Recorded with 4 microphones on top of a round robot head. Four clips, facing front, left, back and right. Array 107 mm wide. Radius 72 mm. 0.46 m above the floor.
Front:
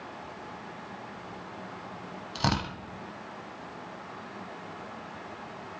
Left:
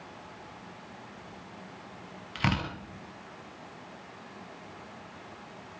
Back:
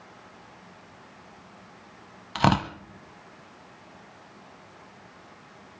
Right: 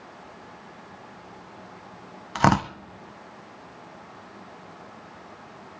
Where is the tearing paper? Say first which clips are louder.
Right 11 dB, back 7 dB; 120° right, 0.9 m.